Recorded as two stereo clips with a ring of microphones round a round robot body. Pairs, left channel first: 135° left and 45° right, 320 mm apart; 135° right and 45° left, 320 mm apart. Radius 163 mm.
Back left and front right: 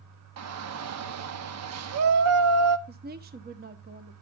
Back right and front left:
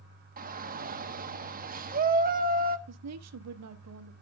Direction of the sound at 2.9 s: 15° left.